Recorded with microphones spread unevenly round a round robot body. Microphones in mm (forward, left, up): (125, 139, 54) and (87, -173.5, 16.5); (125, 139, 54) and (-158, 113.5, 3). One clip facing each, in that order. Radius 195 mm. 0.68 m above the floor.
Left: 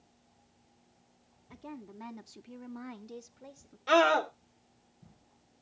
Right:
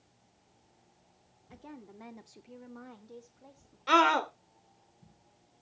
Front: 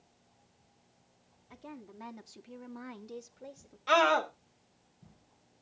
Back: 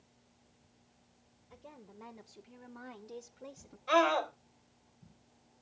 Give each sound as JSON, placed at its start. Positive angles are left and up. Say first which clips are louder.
{"t": 1.5, "sound": "a woman speaking", "louder": "left 3 dB, front 6 dB", "azimuth_deg": 5, "distance_m": 2.5}
{"t": 3.9, "sound": "a scream", "louder": "left 2 dB, front 1 dB", "azimuth_deg": -25, "distance_m": 2.5}